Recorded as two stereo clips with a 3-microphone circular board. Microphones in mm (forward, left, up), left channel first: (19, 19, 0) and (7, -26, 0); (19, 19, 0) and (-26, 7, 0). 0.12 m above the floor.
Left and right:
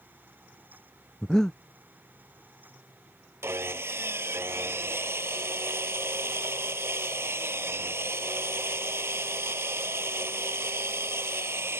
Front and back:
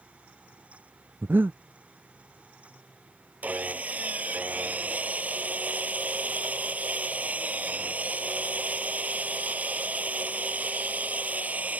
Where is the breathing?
155° left.